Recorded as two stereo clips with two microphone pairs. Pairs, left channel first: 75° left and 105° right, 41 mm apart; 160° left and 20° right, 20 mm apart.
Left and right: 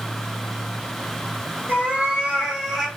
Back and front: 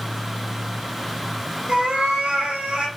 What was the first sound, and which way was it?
A cat meowing, 55° right.